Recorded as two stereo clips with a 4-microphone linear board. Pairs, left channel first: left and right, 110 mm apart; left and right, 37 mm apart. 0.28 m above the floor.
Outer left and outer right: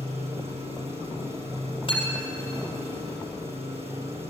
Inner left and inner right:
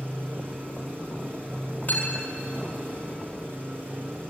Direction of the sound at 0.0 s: 60° right (ahead or behind).